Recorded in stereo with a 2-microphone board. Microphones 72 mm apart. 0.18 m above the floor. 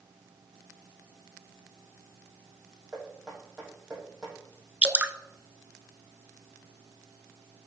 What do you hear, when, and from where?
2.9 s knocking: 10° right (ahead or behind), 5 m
4.8 s dripping: 20° right (ahead or behind), 0.5 m